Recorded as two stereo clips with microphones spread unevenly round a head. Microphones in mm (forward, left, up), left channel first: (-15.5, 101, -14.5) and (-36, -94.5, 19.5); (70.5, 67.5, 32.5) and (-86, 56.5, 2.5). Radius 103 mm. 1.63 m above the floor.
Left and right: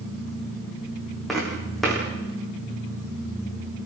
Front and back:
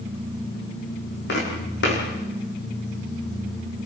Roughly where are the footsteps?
Ahead.